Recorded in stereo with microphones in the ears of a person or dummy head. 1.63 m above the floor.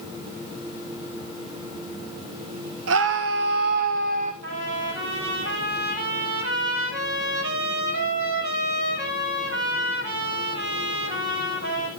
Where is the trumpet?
70° right (ahead or behind), 8.5 m.